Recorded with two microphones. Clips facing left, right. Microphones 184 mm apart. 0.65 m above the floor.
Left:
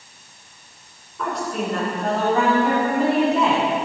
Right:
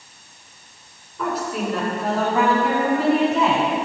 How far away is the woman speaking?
About 2 m.